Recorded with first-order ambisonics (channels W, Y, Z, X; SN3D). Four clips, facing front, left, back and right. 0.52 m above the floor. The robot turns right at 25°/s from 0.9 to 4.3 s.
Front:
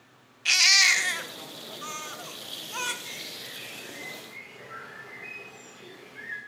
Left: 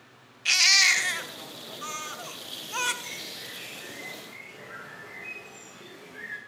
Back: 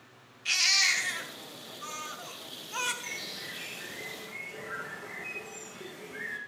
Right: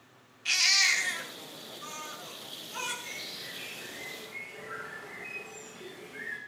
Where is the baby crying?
40° left, 0.8 m; by 2.9 s 90° left, 0.8 m.